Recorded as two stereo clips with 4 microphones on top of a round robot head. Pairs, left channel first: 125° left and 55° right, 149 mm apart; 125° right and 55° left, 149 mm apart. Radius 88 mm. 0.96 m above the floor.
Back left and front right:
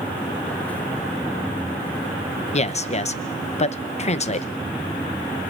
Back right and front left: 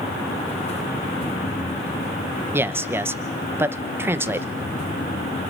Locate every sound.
2.5 s a man speaking: 125° left, 0.8 m